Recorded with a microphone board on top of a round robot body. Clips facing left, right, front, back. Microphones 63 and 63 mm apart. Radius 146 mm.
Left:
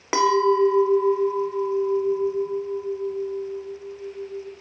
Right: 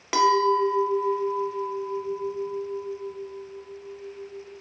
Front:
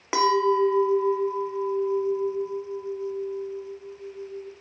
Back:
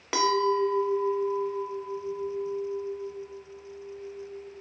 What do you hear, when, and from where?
0.1 s a clink: 50° left, 0.6 m